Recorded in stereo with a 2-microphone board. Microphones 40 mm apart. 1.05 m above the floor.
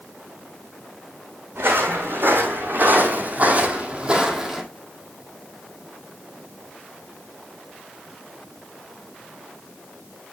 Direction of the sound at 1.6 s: 65° right (ahead or behind).